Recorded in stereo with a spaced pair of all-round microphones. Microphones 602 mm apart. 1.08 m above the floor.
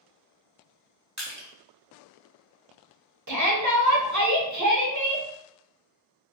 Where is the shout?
30° right (ahead or behind), 0.6 m.